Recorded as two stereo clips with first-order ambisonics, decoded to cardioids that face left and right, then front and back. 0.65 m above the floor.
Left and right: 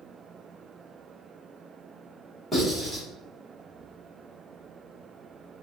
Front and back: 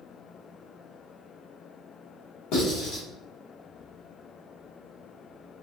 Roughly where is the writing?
Ahead.